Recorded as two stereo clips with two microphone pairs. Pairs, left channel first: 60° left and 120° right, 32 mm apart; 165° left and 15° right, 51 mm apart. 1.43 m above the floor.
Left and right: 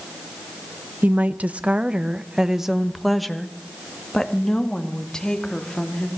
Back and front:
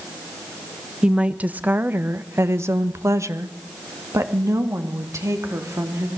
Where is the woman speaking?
90° right, 1.5 m; by 6.1 s straight ahead, 3.5 m.